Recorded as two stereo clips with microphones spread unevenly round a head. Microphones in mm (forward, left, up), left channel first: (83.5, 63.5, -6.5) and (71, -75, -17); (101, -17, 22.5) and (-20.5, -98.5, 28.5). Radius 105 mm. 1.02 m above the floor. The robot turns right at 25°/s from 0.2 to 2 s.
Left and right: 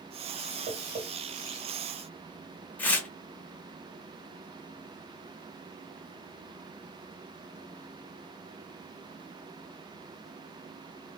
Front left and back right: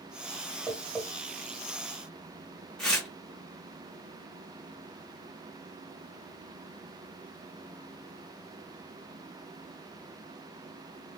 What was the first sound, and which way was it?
Tapping, 70° right.